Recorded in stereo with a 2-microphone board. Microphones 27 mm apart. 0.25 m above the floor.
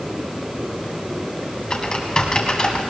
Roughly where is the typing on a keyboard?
Left.